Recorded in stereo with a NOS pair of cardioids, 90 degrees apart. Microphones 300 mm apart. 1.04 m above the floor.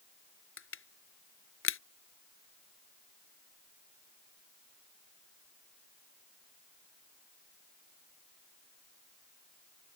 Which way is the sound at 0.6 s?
45° left.